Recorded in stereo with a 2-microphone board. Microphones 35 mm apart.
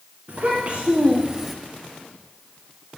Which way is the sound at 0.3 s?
45° right (ahead or behind).